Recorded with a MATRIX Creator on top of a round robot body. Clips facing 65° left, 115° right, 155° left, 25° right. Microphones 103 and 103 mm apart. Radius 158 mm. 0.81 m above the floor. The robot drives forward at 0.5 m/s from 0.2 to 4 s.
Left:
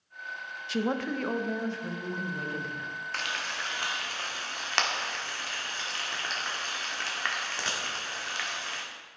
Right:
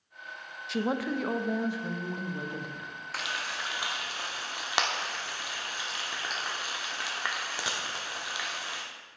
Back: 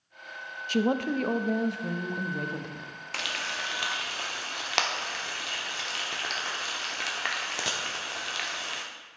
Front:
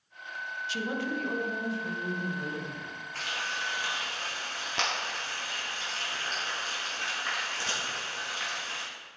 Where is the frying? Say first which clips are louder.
Right 1 dB, back 1 dB; 165° left, 0.6 m; by 8.8 s 170° left, 1.1 m.